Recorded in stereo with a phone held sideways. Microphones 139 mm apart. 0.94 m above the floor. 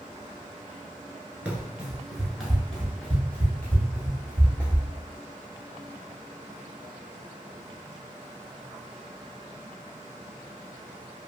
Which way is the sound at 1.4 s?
10° right (ahead or behind).